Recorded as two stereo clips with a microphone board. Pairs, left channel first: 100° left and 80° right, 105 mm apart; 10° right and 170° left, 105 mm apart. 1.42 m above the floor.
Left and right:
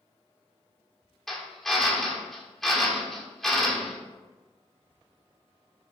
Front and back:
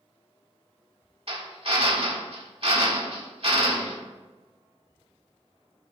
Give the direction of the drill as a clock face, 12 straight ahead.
6 o'clock.